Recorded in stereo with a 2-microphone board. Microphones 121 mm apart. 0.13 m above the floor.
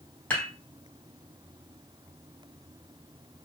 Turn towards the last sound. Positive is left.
turn(degrees=15)  # may be behind; listen again after turning